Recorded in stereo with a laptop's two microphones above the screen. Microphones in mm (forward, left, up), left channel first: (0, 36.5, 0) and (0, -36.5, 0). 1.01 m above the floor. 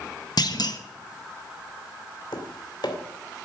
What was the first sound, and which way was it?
A clunk, 65° left (ahead or behind).